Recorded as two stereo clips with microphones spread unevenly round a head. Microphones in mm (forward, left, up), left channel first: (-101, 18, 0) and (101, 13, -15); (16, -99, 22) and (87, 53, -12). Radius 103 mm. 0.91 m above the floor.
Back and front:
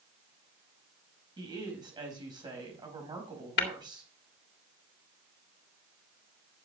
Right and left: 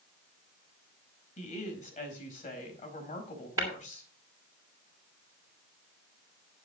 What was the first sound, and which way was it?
A woman speaking, 70° right.